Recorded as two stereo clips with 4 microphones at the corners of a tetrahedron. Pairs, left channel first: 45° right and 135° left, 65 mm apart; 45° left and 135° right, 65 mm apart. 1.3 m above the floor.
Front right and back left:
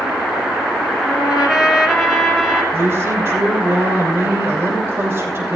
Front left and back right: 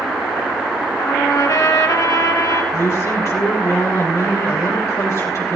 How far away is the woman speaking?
About 6 m.